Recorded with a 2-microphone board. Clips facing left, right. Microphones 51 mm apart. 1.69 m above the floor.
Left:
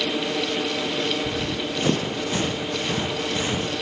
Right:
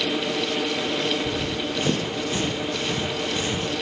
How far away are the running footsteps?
About 4 m.